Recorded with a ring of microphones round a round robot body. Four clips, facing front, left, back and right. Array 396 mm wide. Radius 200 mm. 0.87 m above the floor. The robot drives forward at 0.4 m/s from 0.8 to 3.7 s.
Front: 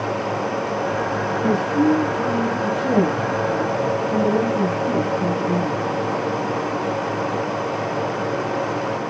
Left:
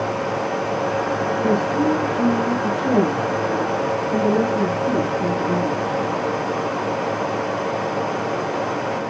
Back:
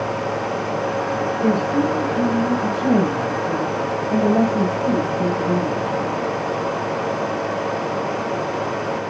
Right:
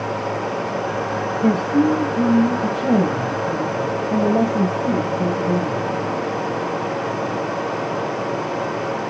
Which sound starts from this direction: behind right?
A woman speaking, at 1.4 s.